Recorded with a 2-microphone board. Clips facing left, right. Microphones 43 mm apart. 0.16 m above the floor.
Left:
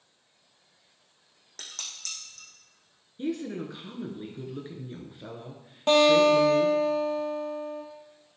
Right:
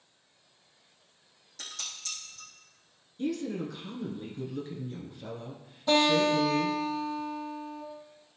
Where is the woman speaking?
25° left (ahead or behind), 2.5 m.